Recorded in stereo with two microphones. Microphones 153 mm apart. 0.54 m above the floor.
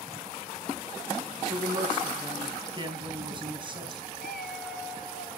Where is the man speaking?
30° right (ahead or behind), 4 m.